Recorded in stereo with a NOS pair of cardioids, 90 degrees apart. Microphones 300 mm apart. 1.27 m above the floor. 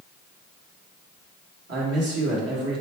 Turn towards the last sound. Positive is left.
turn(degrees=-50)